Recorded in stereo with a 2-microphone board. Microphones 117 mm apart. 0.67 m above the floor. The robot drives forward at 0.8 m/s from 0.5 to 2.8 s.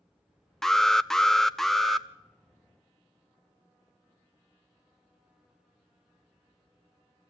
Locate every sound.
0.6 s an alarm: 5° left (ahead or behind), 0.6 m; by 2.1 s centre (ahead or behind), 1.0 m